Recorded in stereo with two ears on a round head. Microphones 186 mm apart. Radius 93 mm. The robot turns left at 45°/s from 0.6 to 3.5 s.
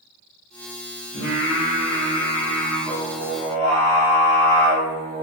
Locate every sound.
1.1 s singing: 70° left, 0.8 m; by 5.2 s 35° right, 0.8 m